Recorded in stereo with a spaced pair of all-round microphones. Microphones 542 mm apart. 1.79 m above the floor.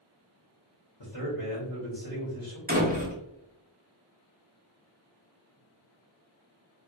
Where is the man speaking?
50° left (ahead or behind), 0.9 m.